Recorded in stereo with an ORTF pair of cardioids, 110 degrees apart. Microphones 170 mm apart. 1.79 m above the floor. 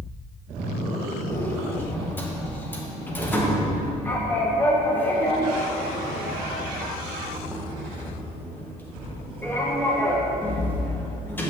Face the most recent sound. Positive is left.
turn(degrees=10)